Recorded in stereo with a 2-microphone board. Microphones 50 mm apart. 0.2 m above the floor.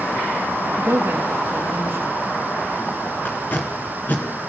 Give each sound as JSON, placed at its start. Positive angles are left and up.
{"t": 0.8, "sound": "a woman speaking", "side_deg": -40, "distance_m": 5.0}
{"t": 3.2, "sound": "tape being pulled", "side_deg": 40, "distance_m": 3.5}